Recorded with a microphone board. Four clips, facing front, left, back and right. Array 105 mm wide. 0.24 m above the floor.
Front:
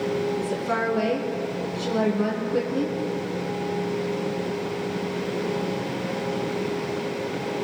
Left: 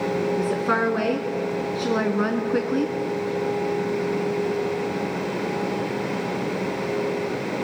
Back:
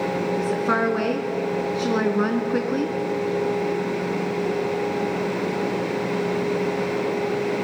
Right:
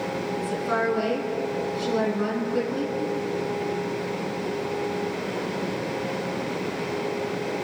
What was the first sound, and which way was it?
A woman speaking, 135° left.